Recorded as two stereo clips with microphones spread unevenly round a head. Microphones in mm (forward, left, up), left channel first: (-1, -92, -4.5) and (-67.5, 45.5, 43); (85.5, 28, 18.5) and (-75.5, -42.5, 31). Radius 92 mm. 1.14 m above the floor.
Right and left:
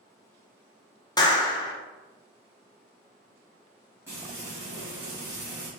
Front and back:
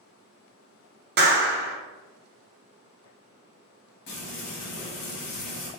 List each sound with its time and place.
1.2 s a clap: 125° right, 0.8 m
4.1 s frying: 30° left, 1.5 m